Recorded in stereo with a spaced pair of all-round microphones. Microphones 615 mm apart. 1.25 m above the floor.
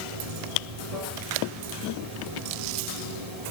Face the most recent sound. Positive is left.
turn(degrees=-70)  # may be behind; listen again after turning